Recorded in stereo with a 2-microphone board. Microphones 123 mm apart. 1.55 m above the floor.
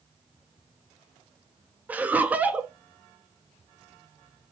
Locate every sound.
1.9 s laughter: 10° right (ahead or behind), 0.5 m